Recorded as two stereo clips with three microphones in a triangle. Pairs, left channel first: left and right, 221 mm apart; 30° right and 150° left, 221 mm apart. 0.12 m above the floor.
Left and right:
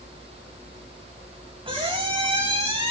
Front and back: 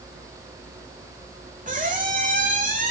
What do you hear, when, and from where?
1.7 s a squeak: 155° right, 1.6 m